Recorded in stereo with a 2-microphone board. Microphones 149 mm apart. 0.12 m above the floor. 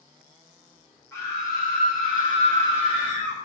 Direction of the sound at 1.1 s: 20° left (ahead or behind).